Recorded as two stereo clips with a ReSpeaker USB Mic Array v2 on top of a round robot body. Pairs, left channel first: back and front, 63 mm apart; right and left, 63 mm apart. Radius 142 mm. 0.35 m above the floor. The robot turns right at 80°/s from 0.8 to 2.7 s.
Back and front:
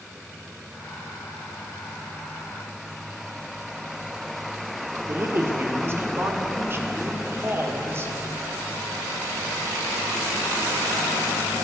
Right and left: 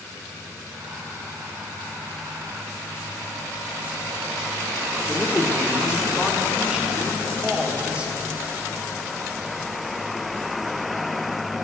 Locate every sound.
5.1 s a man speaking: 25° left, 1.8 m